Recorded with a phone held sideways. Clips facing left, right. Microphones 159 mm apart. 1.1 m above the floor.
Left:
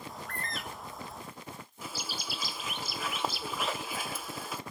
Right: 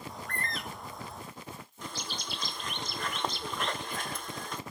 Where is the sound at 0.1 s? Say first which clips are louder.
Right 2 dB; centre (ahead or behind), 0.8 m.